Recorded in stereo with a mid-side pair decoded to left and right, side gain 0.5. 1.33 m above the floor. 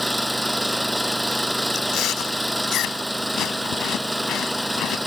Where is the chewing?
70° left.